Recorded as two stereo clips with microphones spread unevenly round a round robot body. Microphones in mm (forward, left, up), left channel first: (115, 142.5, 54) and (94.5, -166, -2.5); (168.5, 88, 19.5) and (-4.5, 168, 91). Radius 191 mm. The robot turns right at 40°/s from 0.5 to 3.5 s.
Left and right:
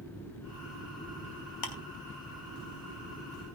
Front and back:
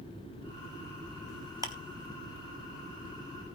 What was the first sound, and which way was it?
Ticking, 75° left.